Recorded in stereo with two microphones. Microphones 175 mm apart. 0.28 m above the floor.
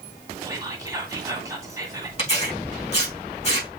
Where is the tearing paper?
40° left (ahead or behind), 5.5 m.